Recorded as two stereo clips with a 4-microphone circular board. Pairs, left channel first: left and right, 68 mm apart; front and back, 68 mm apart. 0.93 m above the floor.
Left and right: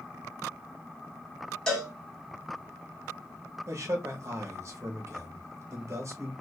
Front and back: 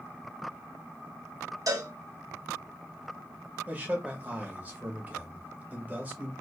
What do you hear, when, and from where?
1.7 s a cowbell: 170° left, 1.3 m
3.7 s a man speaking: 120° right, 1.0 m